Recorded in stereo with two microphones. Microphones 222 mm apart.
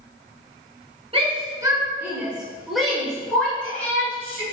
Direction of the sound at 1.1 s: 25° right (ahead or behind).